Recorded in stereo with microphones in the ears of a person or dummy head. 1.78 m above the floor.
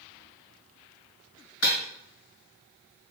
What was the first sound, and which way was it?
Breaking glass, 70° left (ahead or behind).